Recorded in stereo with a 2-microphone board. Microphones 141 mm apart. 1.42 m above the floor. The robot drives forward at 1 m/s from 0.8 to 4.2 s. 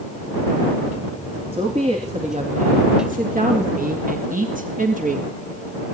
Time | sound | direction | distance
1.5 | a woman speaking | 40° right (ahead or behind) | 3 m